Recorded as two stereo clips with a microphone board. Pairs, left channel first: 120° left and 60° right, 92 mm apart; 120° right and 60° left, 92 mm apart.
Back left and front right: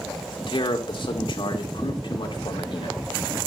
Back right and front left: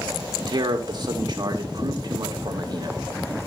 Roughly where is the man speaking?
Left.